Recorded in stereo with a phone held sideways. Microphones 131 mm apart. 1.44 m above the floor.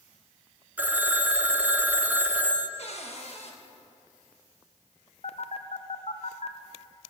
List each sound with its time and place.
0.8 s a phone ringing: 15° right (ahead or behind), 0.8 m
2.8 s a cupboard door: 50° left (ahead or behind), 1.2 m
5.2 s a phone buzzing: 55° left (ahead or behind), 0.6 m